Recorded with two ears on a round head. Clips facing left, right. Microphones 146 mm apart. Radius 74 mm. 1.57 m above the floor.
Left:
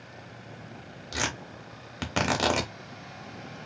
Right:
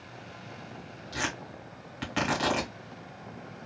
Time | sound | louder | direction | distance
1.1 | tearing paper | left 1 dB | 50° left (ahead or behind) | 1.0 m